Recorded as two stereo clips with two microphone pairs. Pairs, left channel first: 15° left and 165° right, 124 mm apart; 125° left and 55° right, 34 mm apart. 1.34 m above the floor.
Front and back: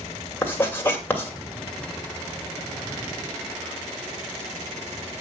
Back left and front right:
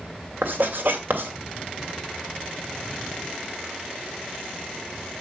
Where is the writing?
60° right, 2.5 m.